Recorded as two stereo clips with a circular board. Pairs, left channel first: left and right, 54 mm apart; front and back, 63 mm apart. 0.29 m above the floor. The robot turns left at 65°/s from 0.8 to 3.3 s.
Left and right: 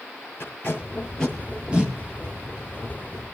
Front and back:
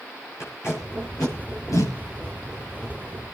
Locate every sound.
0.4 s tape being pulled: 40° left, 7 m; by 1.9 s 35° right, 7 m